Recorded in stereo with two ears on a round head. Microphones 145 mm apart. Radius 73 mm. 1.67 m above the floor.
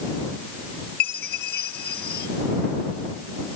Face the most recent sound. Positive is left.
turn(degrees=70)  # may be behind; listen again after turning